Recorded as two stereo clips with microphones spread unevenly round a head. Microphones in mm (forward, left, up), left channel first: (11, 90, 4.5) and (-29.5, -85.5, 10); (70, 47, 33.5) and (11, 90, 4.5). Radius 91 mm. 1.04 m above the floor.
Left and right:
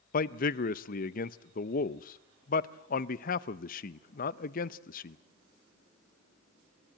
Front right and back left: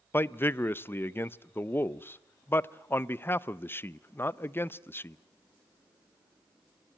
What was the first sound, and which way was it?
A man speaking, 30° left.